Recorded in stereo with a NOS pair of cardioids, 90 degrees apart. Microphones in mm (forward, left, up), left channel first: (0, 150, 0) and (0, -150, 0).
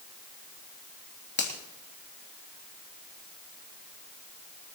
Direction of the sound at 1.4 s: 35° left.